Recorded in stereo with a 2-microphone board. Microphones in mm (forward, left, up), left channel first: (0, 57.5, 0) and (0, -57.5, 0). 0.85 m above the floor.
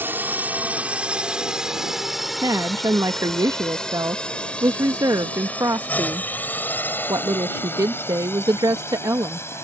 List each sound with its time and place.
0.0 s a drone: 15° right (ahead or behind); by 9.7 s 25° left (ahead or behind)
2.4 s a woman speaking: 30° right (ahead or behind)